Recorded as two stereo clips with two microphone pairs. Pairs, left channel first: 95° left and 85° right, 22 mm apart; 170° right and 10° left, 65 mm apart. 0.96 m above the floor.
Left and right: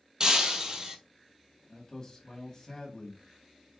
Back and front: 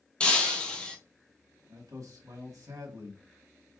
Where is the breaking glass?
110° right, 1.1 m.